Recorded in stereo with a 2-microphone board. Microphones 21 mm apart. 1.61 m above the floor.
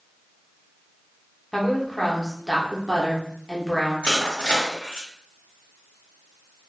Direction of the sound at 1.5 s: 15° left (ahead or behind).